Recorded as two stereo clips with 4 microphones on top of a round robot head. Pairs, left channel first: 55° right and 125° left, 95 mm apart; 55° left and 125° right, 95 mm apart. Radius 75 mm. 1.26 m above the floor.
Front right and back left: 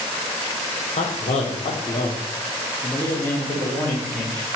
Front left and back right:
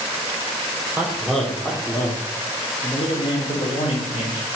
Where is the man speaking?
45° right, 0.9 m; by 4.5 s 30° left, 1.9 m.